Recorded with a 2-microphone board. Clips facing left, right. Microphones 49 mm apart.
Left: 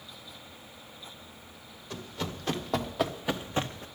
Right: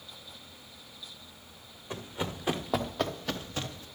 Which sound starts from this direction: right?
Running footsteps, at 1.9 s.